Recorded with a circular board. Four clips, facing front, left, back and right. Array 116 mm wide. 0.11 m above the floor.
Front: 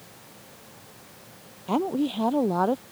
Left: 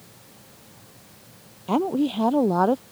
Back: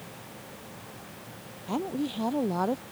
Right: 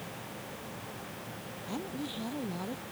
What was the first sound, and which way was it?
A woman speaking, 60° left.